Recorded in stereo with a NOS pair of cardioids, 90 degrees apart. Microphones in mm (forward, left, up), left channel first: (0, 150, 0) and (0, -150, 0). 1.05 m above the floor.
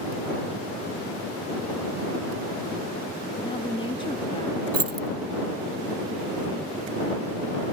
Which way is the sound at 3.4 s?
15° left.